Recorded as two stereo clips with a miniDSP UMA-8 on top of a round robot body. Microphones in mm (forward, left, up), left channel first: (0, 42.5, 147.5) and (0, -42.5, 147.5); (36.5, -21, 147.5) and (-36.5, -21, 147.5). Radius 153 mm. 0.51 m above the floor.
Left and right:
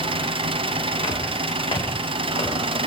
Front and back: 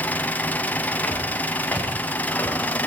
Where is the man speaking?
I don't hear a man speaking.